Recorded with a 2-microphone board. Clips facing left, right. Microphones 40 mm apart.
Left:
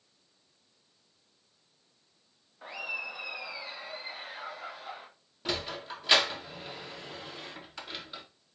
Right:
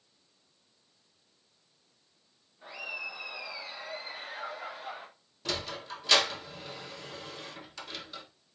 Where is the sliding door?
20° left (ahead or behind), 1.6 m.